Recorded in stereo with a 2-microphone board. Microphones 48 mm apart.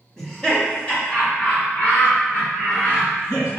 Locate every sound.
0.2 s laughter: 10° left (ahead or behind), 1.3 m; by 3.6 s 55° left (ahead or behind), 2.5 m